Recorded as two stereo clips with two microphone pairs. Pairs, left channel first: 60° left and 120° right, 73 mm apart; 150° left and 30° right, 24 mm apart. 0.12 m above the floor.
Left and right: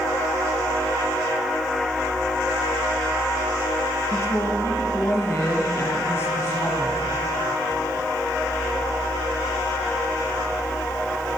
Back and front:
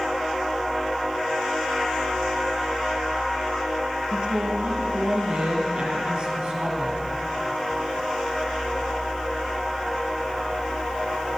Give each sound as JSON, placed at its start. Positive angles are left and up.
{"t": 4.1, "sound": "a woman speaking", "azimuth_deg": 10, "distance_m": 2.5}